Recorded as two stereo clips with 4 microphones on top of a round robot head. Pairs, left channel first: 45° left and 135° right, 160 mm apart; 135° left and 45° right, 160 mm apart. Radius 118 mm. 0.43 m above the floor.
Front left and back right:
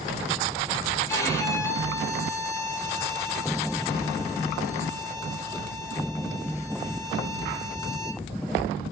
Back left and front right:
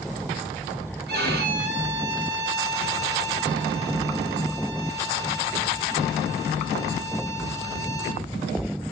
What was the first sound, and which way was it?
A violin, 25° right.